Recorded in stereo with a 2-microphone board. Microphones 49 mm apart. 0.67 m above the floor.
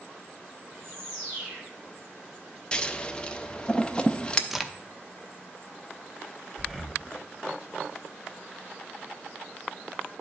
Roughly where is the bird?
Right.